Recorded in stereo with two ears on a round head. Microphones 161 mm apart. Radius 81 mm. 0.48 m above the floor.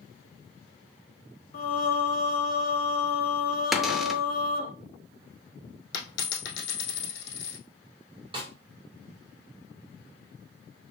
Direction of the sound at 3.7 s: Centre (ahead or behind).